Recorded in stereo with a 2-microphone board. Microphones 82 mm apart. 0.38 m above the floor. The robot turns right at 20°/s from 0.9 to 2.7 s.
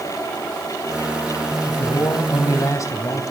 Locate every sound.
1.7 s a man speaking: 55° left (ahead or behind), 2 m; by 3.2 s 40° left (ahead or behind), 2 m